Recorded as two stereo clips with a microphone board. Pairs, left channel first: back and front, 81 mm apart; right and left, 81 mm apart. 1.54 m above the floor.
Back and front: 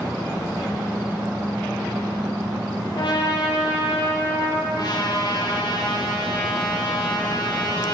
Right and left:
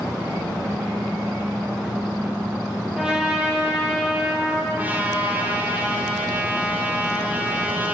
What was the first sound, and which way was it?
A trumpet, 170° left.